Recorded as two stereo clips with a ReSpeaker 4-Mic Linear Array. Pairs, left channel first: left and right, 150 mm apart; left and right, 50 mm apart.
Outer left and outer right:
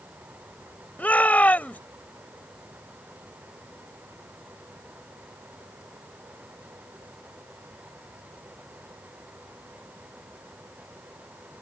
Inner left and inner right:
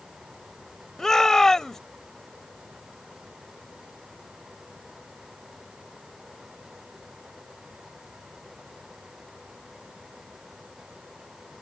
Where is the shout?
10° left (ahead or behind).